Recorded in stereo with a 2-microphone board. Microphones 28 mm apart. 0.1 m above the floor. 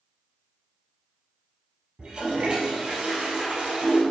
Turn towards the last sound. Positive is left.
turn(degrees=-30)  # may be behind; listen again after turning